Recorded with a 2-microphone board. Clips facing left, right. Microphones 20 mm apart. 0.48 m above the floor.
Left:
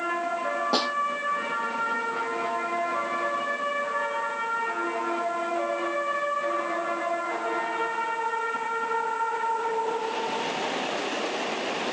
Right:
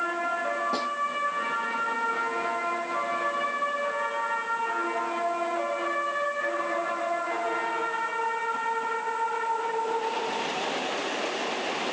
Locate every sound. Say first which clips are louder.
0.7 s a snare drum: left 4 dB; 45° left (ahead or behind)